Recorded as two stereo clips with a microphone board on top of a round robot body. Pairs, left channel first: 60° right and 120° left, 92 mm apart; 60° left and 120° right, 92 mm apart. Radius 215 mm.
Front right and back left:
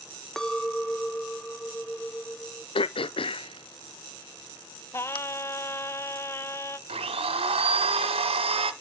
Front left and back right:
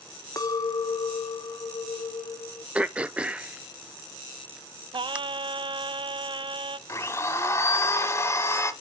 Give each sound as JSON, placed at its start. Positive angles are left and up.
{"t": 0.4, "sound": "a clink", "azimuth_deg": 20, "distance_m": 0.8}
{"t": 2.8, "sound": "throat clearing", "azimuth_deg": -45, "distance_m": 0.6}
{"t": 4.9, "sound": "singing", "azimuth_deg": -115, "distance_m": 0.6}
{"t": 6.9, "sound": "a blender", "azimuth_deg": 120, "distance_m": 0.9}